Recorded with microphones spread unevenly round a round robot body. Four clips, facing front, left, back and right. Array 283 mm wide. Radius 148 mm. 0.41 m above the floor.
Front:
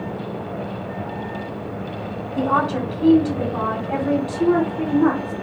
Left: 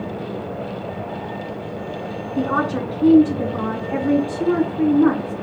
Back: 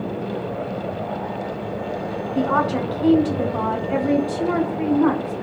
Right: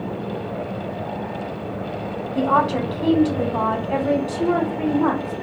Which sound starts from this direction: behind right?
A woman speaking, at 2.4 s.